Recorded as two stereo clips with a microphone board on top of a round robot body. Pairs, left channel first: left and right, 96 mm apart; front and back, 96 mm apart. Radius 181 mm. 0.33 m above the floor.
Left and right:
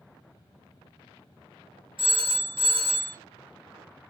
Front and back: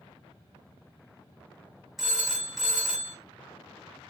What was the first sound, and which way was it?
A phone ringing, 90° right.